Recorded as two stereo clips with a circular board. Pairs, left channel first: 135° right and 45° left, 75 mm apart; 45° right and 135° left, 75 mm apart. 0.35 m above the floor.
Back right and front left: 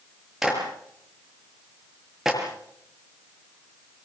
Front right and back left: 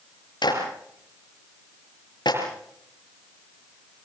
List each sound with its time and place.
0.4 s a clap: 40° right, 6 m